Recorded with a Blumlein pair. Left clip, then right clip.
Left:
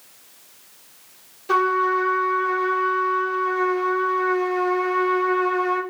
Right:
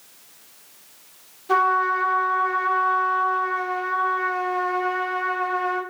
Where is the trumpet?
70° left, 1.5 m.